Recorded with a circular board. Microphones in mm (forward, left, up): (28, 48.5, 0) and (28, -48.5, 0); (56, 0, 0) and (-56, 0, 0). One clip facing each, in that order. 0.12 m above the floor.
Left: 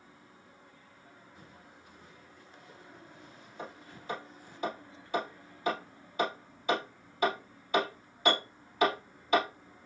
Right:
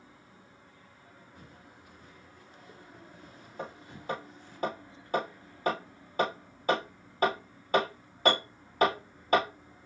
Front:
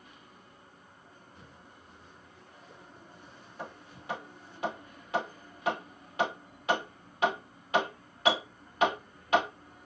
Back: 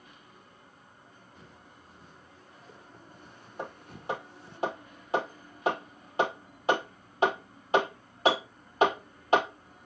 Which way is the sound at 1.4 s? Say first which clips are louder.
Right 1 dB, even; 125° right.